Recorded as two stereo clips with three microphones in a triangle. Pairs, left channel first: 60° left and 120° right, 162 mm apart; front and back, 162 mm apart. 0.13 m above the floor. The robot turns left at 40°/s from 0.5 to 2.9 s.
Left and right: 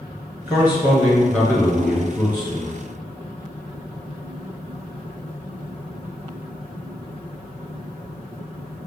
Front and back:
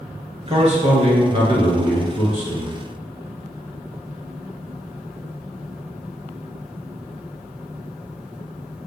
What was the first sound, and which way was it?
A man speaking, 175° left.